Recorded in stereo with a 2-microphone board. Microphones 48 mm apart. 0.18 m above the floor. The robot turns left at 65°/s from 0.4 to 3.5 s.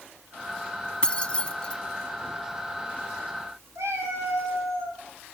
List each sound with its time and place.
1.0 s keys jangling: 20° left (ahead or behind), 0.9 m; by 1.8 s 25° left (ahead or behind), 0.9 m
3.8 s a cat meowing: 85° right, 6 m